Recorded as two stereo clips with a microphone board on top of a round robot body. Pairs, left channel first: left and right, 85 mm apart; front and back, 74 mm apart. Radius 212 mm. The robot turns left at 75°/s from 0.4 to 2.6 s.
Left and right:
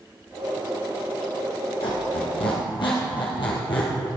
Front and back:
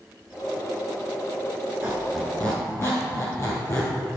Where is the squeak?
115° left, 1.7 m; by 3.9 s 55° left, 1.7 m.